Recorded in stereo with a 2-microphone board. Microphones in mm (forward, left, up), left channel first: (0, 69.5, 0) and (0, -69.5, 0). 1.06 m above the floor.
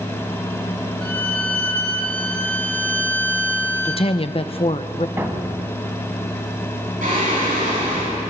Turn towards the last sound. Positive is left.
turn(degrees=-75)  # may be behind; listen again after turning